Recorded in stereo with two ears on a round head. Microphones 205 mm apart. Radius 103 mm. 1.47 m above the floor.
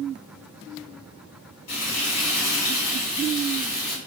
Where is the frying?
75° left (ahead or behind), 1.8 m.